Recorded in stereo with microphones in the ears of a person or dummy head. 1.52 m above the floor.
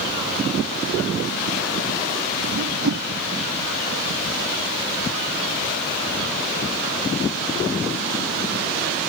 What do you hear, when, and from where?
2.5 s a whoosh: 75° right (ahead or behind)